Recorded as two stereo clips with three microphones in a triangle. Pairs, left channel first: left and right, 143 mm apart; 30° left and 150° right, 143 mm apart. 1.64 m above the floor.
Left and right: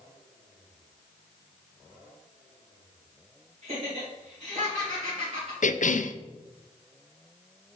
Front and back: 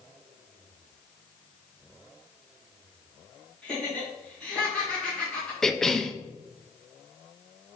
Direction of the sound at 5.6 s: 115° left.